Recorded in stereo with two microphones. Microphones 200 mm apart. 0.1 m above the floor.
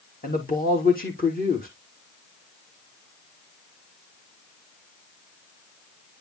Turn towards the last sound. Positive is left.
turn(degrees=45)  # may be behind; listen again after turning